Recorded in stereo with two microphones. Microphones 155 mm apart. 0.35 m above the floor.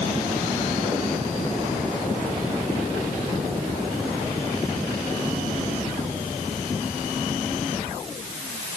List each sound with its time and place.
Only background noise.